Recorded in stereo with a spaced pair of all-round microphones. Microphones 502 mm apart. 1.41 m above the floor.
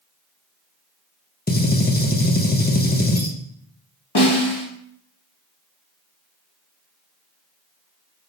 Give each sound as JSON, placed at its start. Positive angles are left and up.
{"t": 1.5, "sound": "a gunshot", "side_deg": 20, "distance_m": 0.5}
{"t": 4.2, "sound": "a snare drum", "side_deg": 50, "distance_m": 1.1}